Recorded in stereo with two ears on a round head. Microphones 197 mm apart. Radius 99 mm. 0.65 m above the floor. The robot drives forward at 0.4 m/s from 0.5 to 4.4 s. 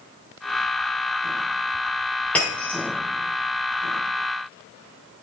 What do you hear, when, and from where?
2.4 s breaking glass: 5° left (ahead or behind), 7.5 m